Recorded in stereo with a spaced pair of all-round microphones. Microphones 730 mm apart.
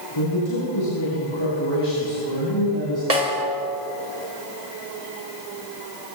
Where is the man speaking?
40° left (ahead or behind), 9.5 m; by 3.0 s 30° left (ahead or behind), 11 m.